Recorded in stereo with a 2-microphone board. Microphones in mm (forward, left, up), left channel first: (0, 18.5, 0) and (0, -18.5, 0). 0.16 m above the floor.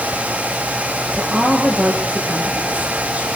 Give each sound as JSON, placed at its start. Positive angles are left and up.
{"t": 1.1, "sound": "a woman speaking", "side_deg": -45, "distance_m": 7.5}